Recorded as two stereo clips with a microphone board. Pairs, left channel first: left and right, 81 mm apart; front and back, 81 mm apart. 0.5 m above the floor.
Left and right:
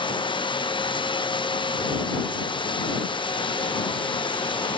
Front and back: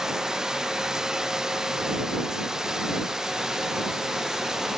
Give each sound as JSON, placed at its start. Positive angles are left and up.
{"t": 0.0, "sound": "running water", "azimuth_deg": 95}